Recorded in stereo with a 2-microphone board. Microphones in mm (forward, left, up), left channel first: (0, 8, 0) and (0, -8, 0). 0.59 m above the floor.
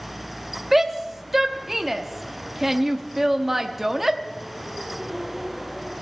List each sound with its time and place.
0.7 s a shout: 15° right (ahead or behind), 0.8 m